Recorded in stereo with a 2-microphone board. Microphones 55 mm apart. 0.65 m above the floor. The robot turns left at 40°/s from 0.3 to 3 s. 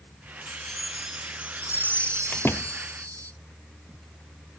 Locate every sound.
0.5 s a chime: 15° left; by 3.3 s 85° right
2.3 s a door slam: 35° left (ahead or behind); by 2.8 s 55° left (ahead or behind)